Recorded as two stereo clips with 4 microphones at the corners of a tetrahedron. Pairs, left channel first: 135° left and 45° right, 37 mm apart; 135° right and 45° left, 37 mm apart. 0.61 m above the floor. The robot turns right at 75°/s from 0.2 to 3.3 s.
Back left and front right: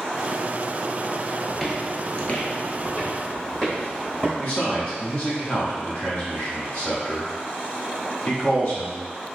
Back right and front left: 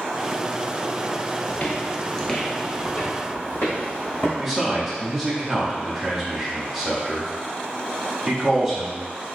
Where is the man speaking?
125° left, 1.2 m.